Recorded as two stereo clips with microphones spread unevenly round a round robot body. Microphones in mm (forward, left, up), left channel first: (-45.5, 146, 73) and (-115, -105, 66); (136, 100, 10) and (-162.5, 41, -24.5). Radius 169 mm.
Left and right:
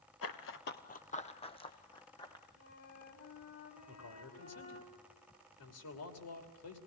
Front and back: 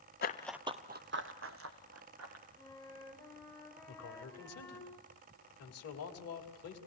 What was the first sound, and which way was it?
Running footsteps, 50° left.